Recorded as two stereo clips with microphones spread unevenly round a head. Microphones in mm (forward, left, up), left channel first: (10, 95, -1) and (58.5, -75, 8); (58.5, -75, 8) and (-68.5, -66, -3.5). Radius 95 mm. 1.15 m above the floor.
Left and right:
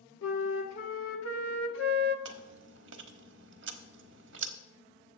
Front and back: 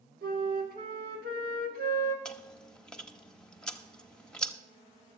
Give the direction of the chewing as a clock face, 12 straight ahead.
3 o'clock.